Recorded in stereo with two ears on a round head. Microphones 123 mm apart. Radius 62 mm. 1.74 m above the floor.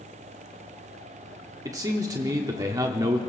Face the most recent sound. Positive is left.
turn(degrees=-25)  # may be behind; listen again after turning